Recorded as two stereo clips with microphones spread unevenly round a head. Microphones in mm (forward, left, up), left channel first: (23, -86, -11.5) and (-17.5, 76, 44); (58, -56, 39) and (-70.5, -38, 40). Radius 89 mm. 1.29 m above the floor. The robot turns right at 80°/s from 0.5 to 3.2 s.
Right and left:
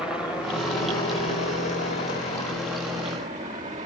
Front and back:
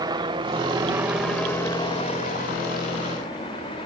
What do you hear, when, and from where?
0.0 s a helicopter: 150° right; by 3.9 s 50° left